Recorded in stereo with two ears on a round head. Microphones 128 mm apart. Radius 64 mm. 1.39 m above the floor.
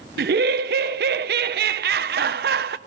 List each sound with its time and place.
0.2 s laughter: 80° right, 0.9 m